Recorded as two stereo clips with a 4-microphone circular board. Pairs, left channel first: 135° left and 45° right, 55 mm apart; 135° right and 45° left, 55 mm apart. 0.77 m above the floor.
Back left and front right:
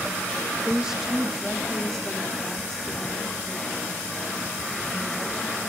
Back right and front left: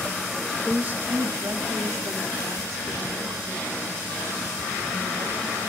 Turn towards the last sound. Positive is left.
turn(degrees=60)